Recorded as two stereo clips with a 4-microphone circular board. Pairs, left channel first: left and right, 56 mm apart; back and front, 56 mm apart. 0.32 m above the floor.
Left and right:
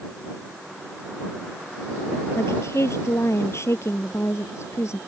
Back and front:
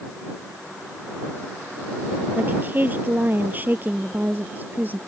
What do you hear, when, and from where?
2.4 s a woman speaking: 55° left